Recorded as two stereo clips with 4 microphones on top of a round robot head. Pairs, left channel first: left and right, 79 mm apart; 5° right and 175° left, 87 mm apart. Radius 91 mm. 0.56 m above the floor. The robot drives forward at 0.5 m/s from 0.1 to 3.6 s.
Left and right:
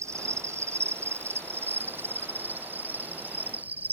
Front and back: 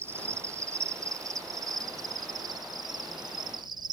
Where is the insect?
130° right; by 4.0 s 155° right.